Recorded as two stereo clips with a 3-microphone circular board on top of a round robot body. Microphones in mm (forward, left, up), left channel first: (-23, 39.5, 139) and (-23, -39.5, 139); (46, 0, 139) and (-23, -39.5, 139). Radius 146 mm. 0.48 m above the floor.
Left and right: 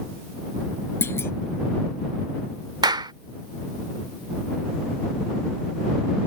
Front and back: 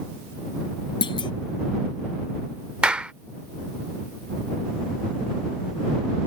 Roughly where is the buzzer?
No buzzer in this recording.